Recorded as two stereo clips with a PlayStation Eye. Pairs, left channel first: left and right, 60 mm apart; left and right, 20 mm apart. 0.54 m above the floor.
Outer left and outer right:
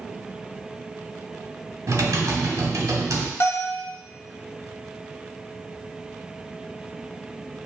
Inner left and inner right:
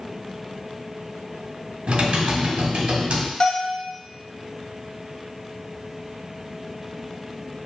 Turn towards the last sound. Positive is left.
turn(degrees=45)  # may be behind; listen again after turning